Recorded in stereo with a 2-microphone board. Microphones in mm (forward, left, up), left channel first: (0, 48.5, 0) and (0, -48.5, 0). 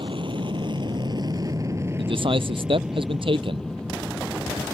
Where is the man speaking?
65° right (ahead or behind).